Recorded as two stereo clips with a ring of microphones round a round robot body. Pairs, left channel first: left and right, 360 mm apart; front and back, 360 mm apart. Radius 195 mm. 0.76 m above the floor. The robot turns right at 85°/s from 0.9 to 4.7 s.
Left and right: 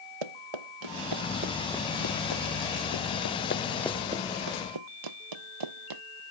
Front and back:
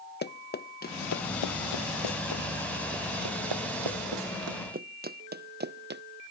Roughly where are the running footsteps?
Ahead right.